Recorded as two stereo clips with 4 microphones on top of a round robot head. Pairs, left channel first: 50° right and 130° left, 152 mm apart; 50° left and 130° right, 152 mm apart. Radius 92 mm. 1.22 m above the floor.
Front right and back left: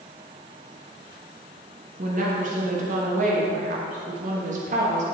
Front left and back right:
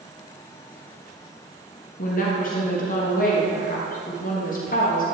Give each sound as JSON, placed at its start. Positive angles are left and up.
{"t": 2.0, "sound": "a woman speaking", "azimuth_deg": 85, "distance_m": 1.2}